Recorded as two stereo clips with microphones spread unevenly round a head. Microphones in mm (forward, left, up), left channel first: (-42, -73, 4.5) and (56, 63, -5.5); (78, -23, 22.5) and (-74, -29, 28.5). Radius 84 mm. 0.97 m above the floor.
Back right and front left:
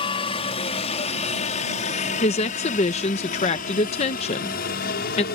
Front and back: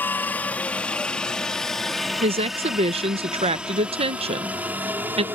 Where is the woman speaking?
155° right.